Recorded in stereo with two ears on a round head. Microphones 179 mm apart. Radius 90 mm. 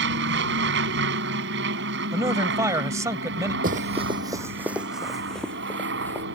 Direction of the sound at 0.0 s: 60° right (ahead or behind).